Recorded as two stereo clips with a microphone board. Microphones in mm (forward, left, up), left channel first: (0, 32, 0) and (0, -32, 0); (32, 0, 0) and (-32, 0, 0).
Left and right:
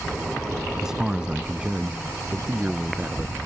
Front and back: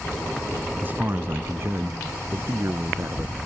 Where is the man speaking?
165° right; by 3.4 s 155° right.